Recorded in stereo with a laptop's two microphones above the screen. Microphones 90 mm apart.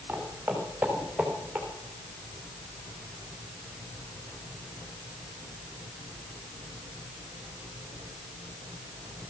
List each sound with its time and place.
0.1 s footsteps: 20° right (ahead or behind), 4.5 m; by 1.7 s 5° right (ahead or behind), 5.5 m